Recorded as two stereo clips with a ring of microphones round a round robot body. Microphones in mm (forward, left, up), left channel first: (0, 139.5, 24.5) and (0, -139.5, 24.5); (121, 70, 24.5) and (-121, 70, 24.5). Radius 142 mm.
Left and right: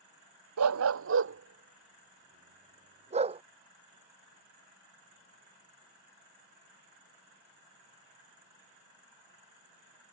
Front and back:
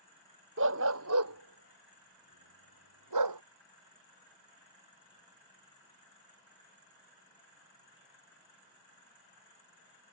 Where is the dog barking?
130° right; by 3.4 s 160° right.